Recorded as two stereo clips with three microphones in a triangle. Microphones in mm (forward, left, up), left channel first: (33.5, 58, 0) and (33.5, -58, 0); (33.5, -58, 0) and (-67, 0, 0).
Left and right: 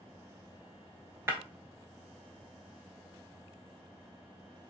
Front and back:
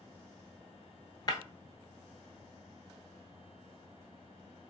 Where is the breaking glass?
35° right, 0.8 m.